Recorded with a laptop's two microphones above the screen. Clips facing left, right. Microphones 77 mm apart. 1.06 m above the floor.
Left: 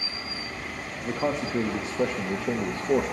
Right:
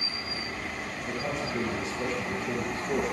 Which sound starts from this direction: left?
A man speaking, at 1.0 s.